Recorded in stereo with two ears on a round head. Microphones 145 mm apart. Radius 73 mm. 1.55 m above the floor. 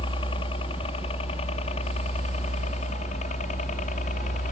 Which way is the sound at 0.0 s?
30° left (ahead or behind).